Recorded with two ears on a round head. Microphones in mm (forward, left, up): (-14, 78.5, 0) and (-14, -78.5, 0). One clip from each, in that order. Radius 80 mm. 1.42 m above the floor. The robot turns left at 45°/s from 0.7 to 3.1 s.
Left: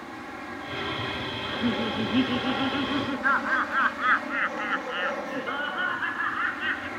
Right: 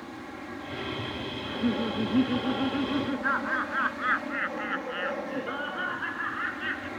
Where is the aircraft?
140° left; by 7.0 s 30° left.